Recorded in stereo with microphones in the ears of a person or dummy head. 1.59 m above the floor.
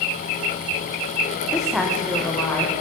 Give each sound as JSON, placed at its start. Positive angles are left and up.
{"t": 1.5, "sound": "a woman speaking", "side_deg": -5, "distance_m": 0.7}